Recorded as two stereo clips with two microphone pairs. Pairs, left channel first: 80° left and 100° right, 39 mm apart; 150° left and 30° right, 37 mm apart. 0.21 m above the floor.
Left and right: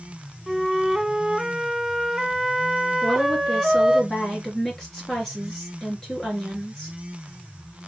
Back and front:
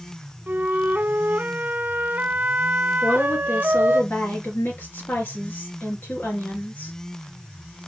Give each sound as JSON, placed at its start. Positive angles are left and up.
{"t": 0.5, "sound": "a flute", "azimuth_deg": -20, "distance_m": 0.7}
{"t": 3.0, "sound": "a woman speaking", "azimuth_deg": 165, "distance_m": 3.5}